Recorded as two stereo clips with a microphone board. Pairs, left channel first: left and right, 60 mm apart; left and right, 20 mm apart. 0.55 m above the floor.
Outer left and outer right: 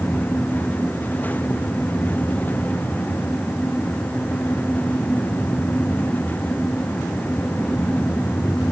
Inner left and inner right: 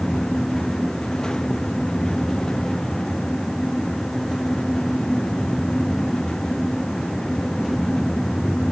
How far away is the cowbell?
No cowbell in this recording.